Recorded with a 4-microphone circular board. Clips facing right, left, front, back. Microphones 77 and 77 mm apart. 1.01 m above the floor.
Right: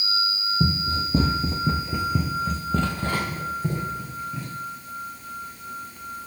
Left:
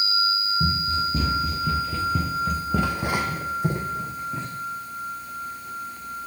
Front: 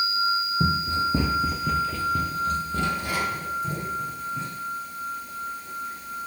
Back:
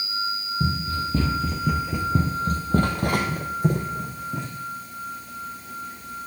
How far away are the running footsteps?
About 1.7 m.